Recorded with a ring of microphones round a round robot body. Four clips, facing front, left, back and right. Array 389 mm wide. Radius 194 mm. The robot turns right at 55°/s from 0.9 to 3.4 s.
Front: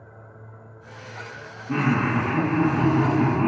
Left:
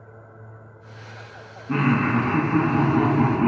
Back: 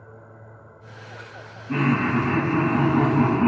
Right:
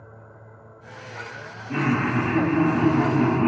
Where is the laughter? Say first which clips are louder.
Left 2 dB, back 1 dB; 65° left, 1.2 m; by 3.5 s 160° left, 1.2 m.